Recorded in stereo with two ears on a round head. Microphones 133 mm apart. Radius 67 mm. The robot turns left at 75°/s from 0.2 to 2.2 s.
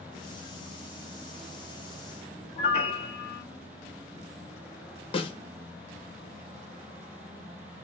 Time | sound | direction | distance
2.6 | a piano | 45° left (ahead or behind) | 0.9 m
5.1 | a snare drum | 35° left (ahead or behind) | 0.7 m